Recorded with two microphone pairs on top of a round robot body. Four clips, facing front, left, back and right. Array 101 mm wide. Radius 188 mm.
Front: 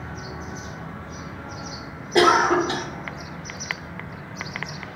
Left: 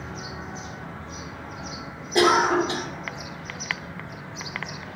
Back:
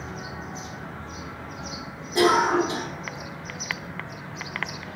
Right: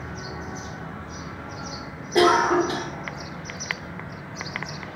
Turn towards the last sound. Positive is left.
turn(degrees=10)